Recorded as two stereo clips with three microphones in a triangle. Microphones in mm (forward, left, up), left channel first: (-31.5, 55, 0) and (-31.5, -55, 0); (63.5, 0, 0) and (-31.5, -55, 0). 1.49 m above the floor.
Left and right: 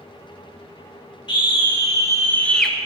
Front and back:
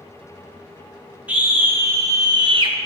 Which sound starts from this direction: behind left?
A scream, at 1.3 s.